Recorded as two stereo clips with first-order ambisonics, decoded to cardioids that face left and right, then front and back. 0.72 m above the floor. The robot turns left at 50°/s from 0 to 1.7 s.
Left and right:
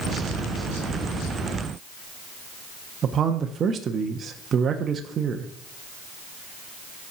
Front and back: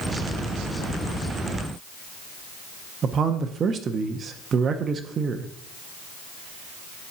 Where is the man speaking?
135° right, 0.6 m.